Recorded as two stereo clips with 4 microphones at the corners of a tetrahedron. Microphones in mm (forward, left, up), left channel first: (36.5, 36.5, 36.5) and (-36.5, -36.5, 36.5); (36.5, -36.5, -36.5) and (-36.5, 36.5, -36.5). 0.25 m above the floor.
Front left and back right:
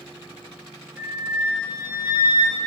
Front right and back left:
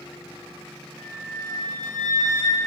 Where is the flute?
165° left, 1.8 m.